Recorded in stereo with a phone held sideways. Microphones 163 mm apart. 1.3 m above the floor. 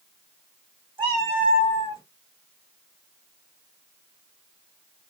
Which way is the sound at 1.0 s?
30° right (ahead or behind).